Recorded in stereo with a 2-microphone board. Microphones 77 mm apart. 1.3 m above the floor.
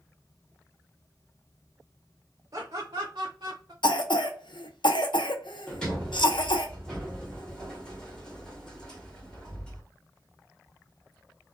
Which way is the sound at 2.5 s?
55° right (ahead or behind).